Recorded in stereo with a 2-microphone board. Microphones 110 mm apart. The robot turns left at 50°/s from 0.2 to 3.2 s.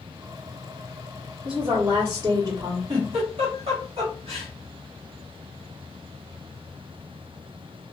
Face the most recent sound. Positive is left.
turn(degrees=-65)  # may be behind; listen again after turning